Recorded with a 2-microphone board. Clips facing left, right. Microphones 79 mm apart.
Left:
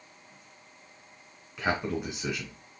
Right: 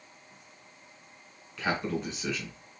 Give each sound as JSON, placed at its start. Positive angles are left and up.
{"t": 1.6, "sound": "a man speaking", "side_deg": 20, "distance_m": 1.5}